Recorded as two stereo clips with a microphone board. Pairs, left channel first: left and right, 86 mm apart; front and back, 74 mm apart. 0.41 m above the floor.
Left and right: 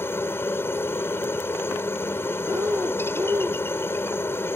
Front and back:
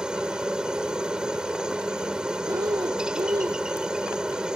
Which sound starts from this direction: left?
A helicopter, at 0.0 s.